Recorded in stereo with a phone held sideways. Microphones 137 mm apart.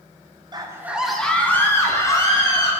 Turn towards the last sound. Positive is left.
turn(degrees=30)  # may be behind; listen again after turning